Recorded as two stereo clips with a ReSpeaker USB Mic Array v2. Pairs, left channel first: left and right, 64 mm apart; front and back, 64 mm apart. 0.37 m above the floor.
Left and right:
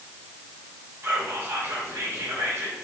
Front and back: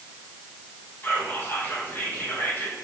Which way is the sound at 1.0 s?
55° right.